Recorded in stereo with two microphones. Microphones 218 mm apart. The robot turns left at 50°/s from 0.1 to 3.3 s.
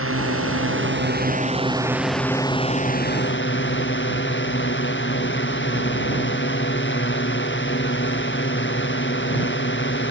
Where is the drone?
80° right; by 10.1 s 120° left.